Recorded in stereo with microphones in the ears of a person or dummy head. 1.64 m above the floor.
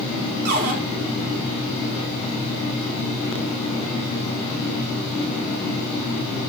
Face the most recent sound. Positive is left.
turn(degrees=-55)  # may be behind; listen again after turning